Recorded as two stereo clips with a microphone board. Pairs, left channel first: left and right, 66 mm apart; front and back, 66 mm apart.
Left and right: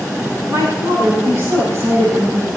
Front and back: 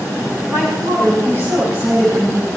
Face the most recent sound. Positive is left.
turn(degrees=-135)